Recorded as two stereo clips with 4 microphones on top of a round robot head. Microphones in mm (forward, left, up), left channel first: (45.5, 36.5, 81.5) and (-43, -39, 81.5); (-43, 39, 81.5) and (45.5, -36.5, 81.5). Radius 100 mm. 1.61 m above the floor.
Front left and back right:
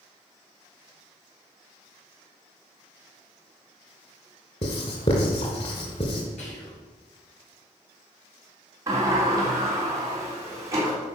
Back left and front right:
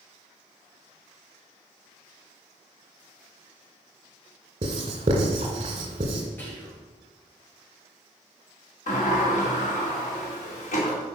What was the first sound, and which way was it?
Writing, 5° left.